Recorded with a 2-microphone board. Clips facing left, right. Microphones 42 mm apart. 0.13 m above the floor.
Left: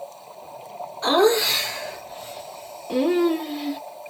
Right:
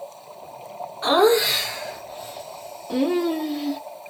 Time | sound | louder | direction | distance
1.0 | laughter | right 1 dB | 10° right (ahead or behind) | 1.4 m